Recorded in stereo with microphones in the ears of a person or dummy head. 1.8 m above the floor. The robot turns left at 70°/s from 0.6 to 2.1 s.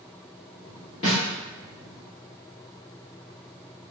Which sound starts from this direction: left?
A snare drum, at 1.0 s.